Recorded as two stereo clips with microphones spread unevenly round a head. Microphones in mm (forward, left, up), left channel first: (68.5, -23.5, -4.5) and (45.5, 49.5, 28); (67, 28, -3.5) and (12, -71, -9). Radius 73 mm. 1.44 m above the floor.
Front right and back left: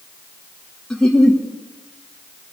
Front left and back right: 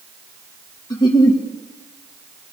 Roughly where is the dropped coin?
I don't hear a dropped coin.